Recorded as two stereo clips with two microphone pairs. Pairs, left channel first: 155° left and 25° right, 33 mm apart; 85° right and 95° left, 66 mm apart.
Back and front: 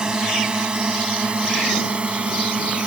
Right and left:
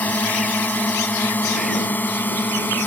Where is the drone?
60° right; by 2.9 s 45° right.